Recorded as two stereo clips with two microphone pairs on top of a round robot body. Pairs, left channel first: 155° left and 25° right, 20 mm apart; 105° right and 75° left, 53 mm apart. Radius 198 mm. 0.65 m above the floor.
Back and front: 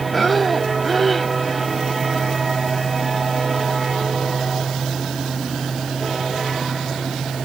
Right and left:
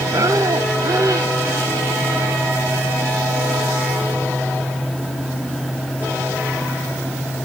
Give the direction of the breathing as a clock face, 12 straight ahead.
10 o'clock.